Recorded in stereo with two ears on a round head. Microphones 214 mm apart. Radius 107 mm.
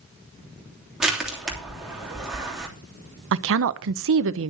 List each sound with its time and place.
1.0 s crushing: centre (ahead or behind), 3 m
3.3 s a woman speaking: 60° right (ahead or behind), 0.8 m